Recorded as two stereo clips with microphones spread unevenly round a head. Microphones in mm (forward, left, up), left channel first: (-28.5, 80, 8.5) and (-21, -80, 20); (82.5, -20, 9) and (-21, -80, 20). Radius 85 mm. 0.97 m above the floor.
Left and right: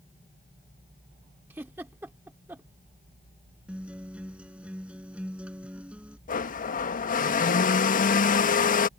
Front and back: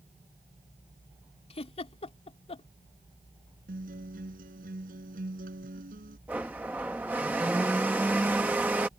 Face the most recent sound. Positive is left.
turn(degrees=130)